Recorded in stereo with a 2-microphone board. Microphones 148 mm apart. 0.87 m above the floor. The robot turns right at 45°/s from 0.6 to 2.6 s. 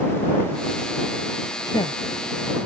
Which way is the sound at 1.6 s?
25° left (ahead or behind).